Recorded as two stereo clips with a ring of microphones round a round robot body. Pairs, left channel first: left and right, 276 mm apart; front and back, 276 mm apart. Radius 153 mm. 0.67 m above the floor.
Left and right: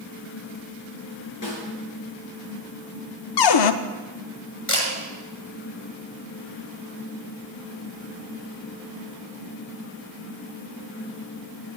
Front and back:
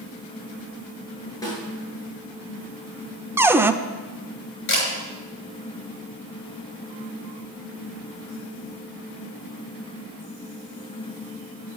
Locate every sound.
1.4 s a snare drum: 75° left, 6 m
3.4 s a cupboard door: 95° left, 0.6 m
4.7 s a camera shutter: 45° left, 6.5 m